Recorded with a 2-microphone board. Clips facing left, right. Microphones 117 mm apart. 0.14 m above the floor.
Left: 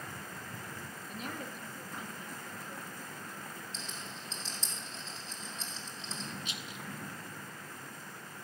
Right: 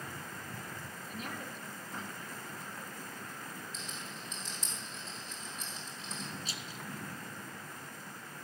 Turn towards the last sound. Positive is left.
turn(degrees=-35)  # may be behind; listen again after turning